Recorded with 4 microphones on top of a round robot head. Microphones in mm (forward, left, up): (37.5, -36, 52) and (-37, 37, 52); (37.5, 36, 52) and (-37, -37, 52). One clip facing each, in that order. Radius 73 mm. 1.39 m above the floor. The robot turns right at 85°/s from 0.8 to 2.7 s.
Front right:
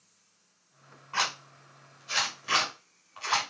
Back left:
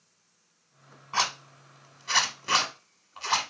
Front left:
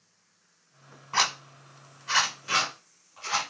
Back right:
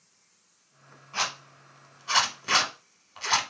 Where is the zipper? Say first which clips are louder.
Back left 3 dB, front left 5 dB; 70° left, 1.2 m; by 3.4 s 160° right, 1.2 m.